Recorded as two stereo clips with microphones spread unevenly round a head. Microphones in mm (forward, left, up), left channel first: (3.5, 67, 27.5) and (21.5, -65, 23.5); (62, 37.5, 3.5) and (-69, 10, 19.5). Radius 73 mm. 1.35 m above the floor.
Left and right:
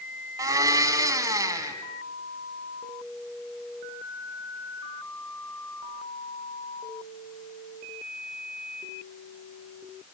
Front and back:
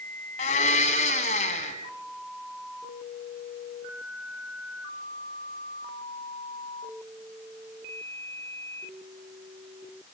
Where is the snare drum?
No snare drum in this recording.